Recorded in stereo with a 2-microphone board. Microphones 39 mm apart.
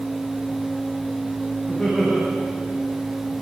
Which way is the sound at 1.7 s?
25° left (ahead or behind).